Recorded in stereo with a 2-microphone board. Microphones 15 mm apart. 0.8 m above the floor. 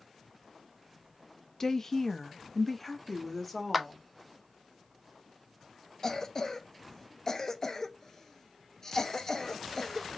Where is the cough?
30° left (ahead or behind), 0.8 m.